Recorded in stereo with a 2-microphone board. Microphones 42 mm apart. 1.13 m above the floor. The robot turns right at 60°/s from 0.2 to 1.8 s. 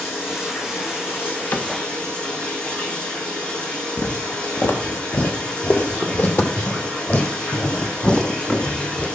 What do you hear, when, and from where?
0.0 s running water: 60° left, 5.5 m; by 9.2 s 155° left, 5.5 m
1.5 s a cupboard door: 45° left (ahead or behind), 1.3 m; by 1.8 s 55° left (ahead or behind), 1.3 m
4.0 s footsteps: 55° left (ahead or behind), 1.9 m; by 9.1 s 25° left (ahead or behind), 4 m